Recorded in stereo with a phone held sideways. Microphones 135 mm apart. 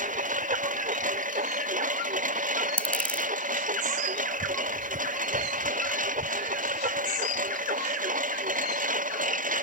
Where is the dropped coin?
10° left (ahead or behind).